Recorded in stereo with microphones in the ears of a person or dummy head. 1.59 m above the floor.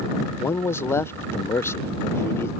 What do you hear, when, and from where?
0.4 s a man speaking: 10° left (ahead or behind)